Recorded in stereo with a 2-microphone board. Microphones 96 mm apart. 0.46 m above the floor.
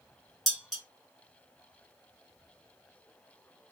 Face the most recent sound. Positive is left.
turn(degrees=5)  # may be behind; listen again after turning